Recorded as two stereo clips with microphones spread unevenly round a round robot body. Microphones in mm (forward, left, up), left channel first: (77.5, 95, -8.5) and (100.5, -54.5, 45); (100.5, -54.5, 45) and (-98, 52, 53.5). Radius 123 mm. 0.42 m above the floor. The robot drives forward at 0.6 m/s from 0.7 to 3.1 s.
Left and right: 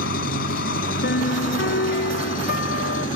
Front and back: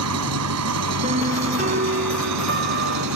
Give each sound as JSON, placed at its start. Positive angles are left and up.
{"t": 0.0, "sound": "an engine running", "azimuth_deg": 130}
{"t": 1.0, "sound": "a piano", "azimuth_deg": 85}